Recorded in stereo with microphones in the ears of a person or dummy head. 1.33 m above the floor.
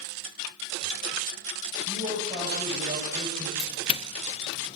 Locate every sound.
1.9 s a man speaking: 20° right (ahead or behind), 10 m
3.6 s a doorbell: 30° left (ahead or behind), 1.3 m